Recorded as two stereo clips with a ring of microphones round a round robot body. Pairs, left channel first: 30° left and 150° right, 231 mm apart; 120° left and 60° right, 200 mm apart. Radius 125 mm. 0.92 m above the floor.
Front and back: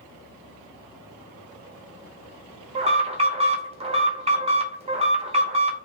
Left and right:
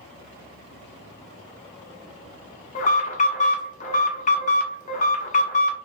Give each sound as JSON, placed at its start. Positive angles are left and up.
{"t": 2.8, "sound": "an alarm", "azimuth_deg": 155, "distance_m": 0.7}